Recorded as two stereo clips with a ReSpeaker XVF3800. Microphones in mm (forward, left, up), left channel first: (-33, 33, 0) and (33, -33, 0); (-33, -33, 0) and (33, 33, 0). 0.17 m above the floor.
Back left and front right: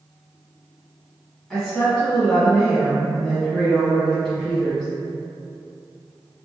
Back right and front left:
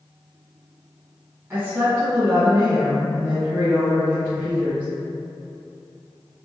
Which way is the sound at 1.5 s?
60° left.